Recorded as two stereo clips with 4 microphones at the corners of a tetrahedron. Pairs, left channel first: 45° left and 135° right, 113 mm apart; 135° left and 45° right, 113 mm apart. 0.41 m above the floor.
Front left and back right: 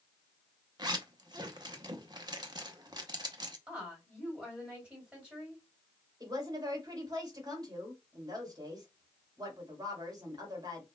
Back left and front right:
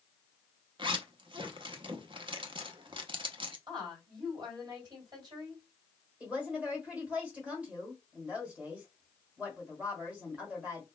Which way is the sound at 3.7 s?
60° right.